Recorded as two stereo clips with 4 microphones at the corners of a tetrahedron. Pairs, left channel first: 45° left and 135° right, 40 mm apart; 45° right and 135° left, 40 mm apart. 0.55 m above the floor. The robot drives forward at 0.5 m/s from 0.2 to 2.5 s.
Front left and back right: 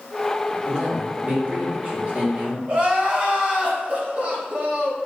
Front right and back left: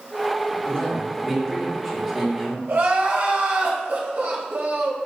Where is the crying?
165° left, 0.8 m.